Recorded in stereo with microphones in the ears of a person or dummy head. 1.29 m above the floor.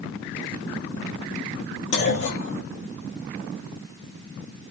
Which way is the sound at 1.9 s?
70° left (ahead or behind).